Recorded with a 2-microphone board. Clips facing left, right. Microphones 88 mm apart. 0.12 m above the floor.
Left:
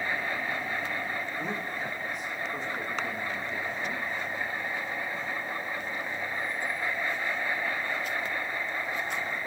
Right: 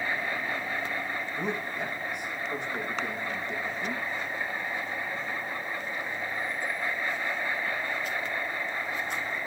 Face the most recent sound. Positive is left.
turn(degrees=-60)  # may be behind; listen again after turning